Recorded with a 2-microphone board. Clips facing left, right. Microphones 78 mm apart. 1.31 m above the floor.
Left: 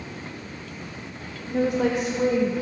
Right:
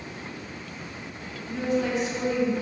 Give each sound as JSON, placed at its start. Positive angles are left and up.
{"t": 1.5, "sound": "a woman speaking", "side_deg": 50, "distance_m": 0.6}